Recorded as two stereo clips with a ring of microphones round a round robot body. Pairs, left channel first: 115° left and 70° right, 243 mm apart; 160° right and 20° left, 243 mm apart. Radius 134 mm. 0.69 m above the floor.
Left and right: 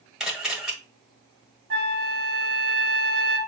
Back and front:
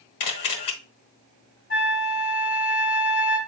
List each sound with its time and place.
0.2 s a camera shutter: 155° right, 1.2 m
1.7 s a flute: 105° right, 1.7 m